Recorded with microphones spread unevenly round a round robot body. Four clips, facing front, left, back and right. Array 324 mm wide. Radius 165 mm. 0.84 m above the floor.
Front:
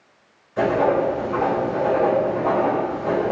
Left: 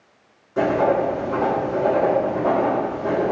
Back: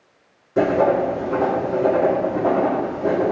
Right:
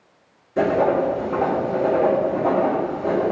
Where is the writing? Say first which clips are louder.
Even, back 2 dB; 170° right, 1.5 m.